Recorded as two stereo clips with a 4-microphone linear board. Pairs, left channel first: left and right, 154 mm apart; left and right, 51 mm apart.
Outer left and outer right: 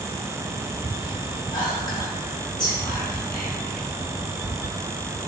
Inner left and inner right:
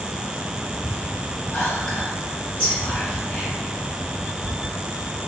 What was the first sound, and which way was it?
Whispering, 25° left (ahead or behind).